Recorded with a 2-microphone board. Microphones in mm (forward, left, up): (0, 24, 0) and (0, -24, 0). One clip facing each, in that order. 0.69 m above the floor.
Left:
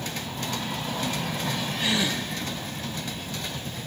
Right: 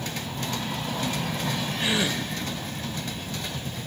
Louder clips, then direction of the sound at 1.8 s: Even; 20° right (ahead or behind).